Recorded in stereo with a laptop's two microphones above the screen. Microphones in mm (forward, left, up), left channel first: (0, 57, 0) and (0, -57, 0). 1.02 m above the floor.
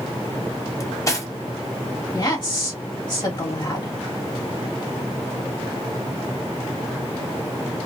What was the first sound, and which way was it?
Cutlery clinking, 30° left (ahead or behind).